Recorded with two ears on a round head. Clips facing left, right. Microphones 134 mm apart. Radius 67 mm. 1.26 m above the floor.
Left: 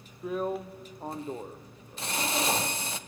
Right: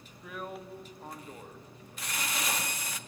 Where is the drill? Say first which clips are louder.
Left 10 dB; 25° left (ahead or behind), 0.8 m.